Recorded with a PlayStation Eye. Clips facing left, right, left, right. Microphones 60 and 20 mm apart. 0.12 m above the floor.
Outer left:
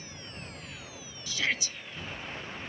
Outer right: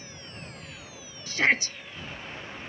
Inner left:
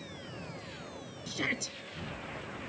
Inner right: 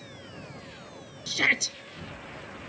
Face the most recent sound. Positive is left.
turn(degrees=-45)  # may be behind; listen again after turning